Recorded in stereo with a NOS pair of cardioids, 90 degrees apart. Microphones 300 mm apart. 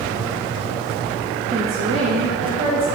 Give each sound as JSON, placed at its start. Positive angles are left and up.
{"t": 1.5, "sound": "a woman speaking", "azimuth_deg": -20, "distance_m": 0.6}